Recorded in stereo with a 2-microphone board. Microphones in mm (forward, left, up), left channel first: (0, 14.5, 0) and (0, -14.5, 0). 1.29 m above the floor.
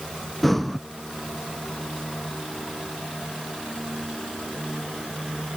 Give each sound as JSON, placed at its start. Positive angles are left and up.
{"t": 0.4, "sound": "breathing", "side_deg": 5}